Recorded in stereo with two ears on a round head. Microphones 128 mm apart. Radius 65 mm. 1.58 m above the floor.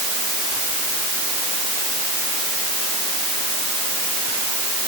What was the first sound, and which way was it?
Only background noise.